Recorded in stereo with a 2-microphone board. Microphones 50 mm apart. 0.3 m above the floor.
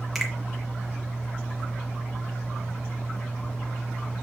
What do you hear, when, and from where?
0.1 s a finger snap: centre (ahead or behind), 3.5 m